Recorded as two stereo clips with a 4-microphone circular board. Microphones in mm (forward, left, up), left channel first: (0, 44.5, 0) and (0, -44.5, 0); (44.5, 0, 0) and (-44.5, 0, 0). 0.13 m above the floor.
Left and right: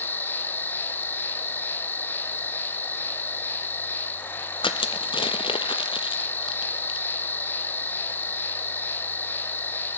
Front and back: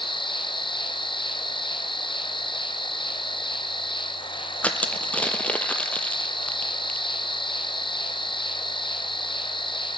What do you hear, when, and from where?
0.0 s an insect: 20° left, 1.2 m
4.6 s crushing: 75° left, 1.0 m